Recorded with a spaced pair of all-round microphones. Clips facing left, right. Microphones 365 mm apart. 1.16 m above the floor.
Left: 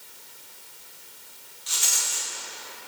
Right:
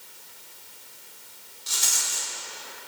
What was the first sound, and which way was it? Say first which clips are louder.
A rattle: even; 55° right (ahead or behind).